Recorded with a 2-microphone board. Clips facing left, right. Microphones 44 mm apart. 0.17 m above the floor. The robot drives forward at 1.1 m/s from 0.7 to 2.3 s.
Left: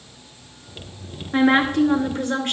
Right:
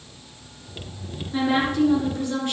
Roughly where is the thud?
I don't hear a thud.